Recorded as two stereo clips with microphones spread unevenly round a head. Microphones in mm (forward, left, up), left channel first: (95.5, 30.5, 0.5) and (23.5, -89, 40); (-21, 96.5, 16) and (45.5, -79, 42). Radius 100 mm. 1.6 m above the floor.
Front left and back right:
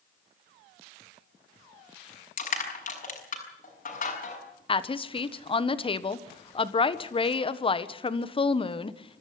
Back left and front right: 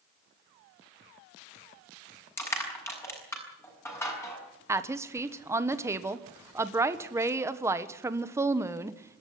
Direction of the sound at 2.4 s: 35° left.